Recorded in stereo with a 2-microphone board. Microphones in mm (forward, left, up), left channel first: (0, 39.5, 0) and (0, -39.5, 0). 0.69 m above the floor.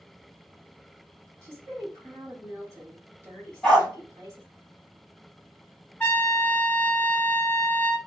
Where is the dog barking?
15° left (ahead or behind), 1.3 m.